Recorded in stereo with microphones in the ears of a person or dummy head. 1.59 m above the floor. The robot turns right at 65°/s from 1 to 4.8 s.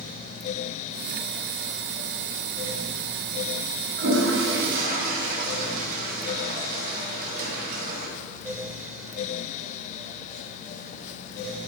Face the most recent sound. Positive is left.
turn(degrees=-70)